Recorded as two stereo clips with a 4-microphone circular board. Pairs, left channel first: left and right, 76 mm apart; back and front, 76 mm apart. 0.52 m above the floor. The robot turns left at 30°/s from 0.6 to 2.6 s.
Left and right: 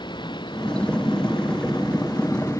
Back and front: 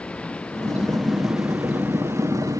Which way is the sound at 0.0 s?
105° left.